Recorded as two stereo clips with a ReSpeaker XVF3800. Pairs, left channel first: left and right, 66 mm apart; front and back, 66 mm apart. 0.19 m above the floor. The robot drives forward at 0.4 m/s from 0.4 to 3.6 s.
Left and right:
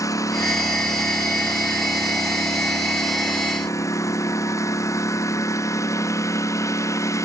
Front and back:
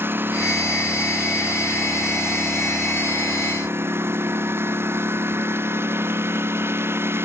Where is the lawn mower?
120° left; by 7.3 s 125° left.